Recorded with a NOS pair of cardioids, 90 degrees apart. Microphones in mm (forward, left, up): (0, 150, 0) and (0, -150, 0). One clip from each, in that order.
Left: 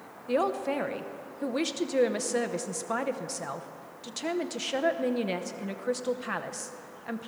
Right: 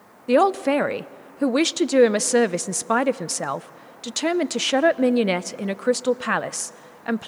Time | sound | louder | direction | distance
0.3 | a man speaking | right 10 dB | 50° right | 0.7 m